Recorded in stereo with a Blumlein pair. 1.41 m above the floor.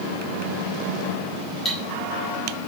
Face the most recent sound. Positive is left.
turn(degrees=10)